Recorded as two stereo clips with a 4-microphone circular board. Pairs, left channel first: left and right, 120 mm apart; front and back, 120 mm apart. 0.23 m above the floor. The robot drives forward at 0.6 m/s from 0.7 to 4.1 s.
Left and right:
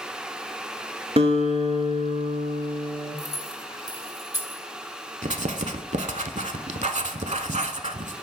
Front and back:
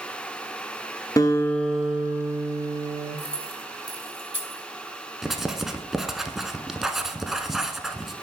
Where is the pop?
I don't hear a pop.